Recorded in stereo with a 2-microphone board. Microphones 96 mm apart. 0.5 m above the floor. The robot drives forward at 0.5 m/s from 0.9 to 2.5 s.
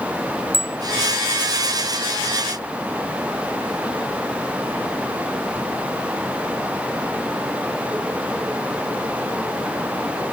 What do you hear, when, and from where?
0.5 s a bicycle bell: 75° right (ahead or behind)